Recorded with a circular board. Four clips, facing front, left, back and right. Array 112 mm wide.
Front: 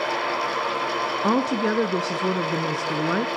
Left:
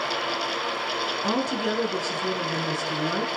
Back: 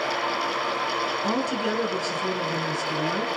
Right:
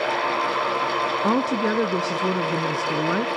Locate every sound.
1.2 s a woman speaking: 45° right, 1.7 m